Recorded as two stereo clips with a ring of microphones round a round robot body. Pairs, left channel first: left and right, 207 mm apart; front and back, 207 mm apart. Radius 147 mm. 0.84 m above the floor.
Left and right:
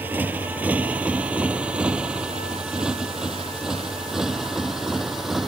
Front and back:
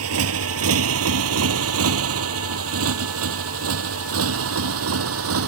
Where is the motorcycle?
175° right; by 5.5 s straight behind.